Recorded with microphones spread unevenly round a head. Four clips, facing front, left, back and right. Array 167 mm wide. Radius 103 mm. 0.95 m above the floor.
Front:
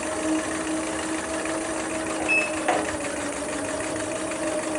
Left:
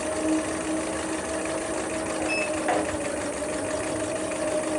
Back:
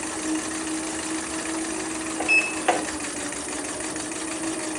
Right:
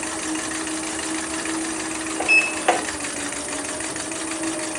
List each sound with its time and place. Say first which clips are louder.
0.0 s an insect: left 3 dB, front 3 dB; 55° left, 4 m
2.2 s a sliding door: right 6 dB, back 3 dB; 85° right, 1.9 m